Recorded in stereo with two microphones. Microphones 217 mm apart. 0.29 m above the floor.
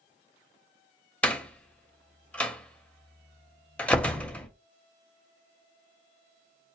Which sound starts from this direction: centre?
A door slam, at 1.2 s.